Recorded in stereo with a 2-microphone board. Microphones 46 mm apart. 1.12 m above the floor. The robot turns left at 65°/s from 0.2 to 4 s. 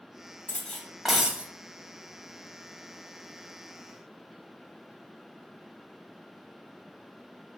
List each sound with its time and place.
0.5 s cutlery clinking: 35° left, 0.6 m; by 1.5 s 30° right, 0.6 m